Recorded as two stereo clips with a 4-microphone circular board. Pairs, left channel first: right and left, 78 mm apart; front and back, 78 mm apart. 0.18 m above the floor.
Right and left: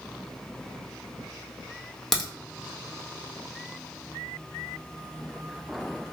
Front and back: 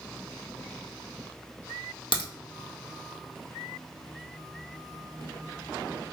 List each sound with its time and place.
2.1 s a crack: 5° right, 1.4 m